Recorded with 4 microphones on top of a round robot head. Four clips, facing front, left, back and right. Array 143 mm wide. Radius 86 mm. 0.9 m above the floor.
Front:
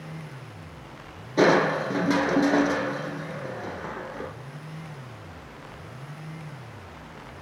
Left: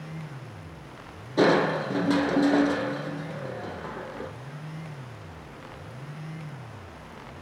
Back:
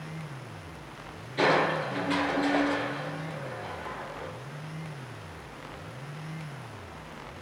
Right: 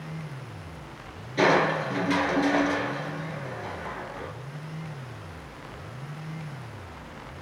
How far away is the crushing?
About 2.5 m.